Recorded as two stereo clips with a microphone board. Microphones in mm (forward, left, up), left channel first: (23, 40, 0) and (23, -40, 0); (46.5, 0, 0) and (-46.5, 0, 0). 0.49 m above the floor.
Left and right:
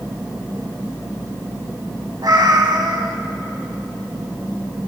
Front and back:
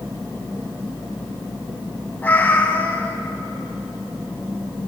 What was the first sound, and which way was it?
A cat meowing, 70° right.